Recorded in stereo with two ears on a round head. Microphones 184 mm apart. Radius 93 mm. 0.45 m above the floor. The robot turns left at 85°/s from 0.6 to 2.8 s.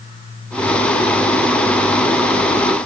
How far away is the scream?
No scream in this recording.